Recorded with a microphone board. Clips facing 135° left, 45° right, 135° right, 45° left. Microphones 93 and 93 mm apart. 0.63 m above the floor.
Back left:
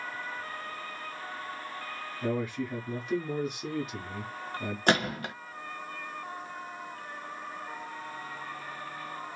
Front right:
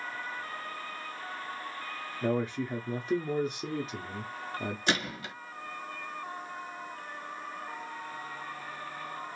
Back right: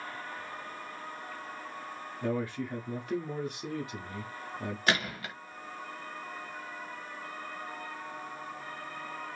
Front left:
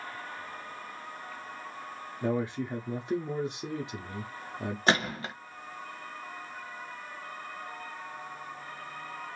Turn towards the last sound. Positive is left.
turn(degrees=105)